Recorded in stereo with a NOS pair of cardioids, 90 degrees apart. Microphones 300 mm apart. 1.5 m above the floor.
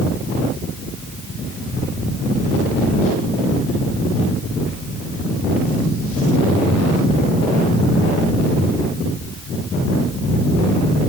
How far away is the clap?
I don't hear a clap.